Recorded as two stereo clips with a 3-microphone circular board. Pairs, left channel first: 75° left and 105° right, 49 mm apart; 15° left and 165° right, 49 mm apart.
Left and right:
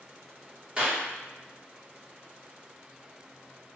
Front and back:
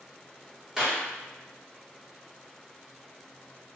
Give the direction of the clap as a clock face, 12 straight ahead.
4 o'clock.